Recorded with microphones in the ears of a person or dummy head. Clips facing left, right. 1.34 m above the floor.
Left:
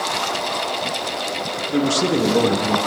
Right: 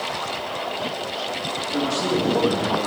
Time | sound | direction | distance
1.7 | a man speaking | 45° left (ahead or behind) | 1.4 m